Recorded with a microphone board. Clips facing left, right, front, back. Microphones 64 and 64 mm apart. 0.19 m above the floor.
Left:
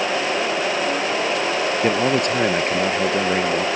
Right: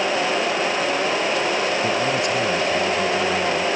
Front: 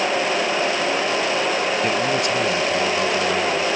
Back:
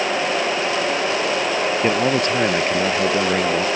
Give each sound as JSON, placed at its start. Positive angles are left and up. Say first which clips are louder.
{"t": 1.8, "sound": "a man speaking", "louder": "left 2 dB, back 2 dB", "azimuth_deg": 125}